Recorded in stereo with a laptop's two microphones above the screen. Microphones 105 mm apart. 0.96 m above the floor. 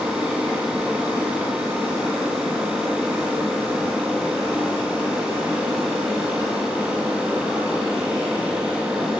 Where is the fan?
10° right (ahead or behind), 1.4 m.